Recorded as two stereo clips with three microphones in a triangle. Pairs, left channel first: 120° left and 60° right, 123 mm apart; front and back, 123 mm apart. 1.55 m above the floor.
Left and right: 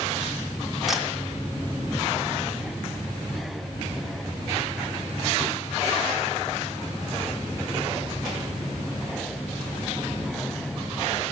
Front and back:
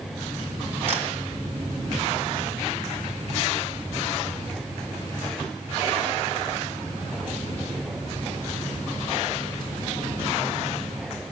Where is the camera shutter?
150° right, 3 m.